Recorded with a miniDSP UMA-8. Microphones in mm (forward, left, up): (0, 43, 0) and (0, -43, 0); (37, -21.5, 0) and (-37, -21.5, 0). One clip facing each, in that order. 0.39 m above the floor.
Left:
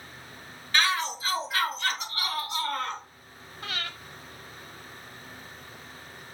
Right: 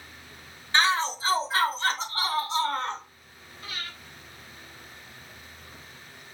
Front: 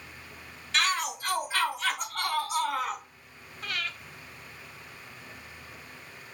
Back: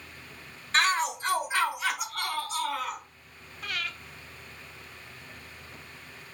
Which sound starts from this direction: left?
Breathing, at 3.6 s.